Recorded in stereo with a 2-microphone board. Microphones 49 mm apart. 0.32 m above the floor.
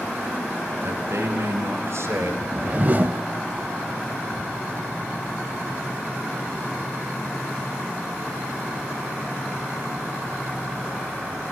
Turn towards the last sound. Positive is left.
turn(degrees=-40)  # may be behind; listen again after turning